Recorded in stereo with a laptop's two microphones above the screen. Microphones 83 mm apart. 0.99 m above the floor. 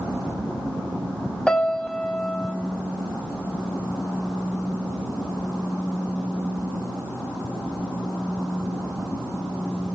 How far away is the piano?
About 0.7 m.